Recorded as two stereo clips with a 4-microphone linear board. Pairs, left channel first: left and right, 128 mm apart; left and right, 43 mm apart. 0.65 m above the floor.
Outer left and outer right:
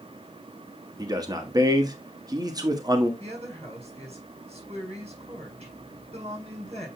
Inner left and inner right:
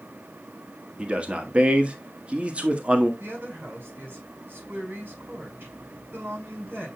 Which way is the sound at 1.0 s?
30° right (ahead or behind).